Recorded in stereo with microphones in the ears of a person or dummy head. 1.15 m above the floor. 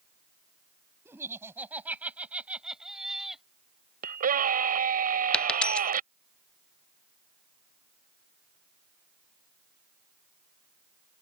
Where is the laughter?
10° right (ahead or behind); by 3.5 s centre (ahead or behind).